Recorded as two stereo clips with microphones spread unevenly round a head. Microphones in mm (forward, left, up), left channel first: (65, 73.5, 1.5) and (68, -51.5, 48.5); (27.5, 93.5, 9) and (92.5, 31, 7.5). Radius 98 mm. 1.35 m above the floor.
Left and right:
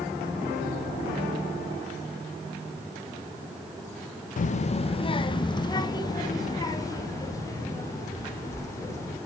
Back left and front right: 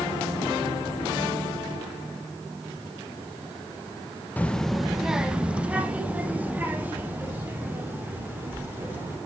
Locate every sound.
4.4 s a child speaking: 65° left, 0.6 m; by 9.2 s 25° left, 4.5 m